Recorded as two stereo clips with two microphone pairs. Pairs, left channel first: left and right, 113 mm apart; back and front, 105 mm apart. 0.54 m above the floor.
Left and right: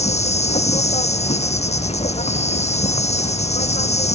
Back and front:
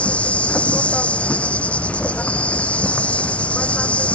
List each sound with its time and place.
0.0 s an insect: 105° left